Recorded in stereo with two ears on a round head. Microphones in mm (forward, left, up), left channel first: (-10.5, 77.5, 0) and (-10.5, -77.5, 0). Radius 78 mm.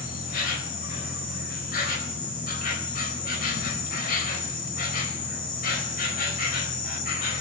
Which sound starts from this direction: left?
An insect, at 0.0 s.